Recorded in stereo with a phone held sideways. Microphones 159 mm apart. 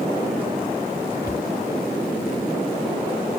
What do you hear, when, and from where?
1.2 s a cupboard door: 70° left (ahead or behind)